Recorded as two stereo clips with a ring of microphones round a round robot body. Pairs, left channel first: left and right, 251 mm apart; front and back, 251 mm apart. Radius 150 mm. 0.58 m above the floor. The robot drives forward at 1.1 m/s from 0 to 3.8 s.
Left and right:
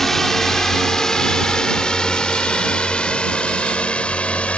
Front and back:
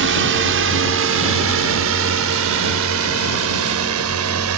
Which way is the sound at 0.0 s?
Straight behind.